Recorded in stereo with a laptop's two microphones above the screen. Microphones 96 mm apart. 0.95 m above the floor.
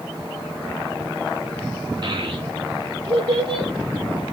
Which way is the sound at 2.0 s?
45° right (ahead or behind).